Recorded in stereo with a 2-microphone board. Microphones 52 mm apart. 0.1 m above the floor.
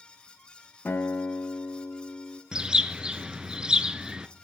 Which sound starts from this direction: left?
A guitar, at 0.8 s.